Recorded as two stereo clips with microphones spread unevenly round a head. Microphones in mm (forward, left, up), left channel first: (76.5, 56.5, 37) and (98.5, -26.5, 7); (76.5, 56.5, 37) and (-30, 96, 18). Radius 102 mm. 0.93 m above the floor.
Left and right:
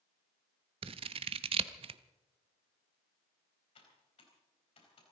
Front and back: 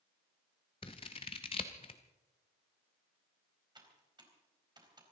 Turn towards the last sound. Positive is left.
turn(degrees=110)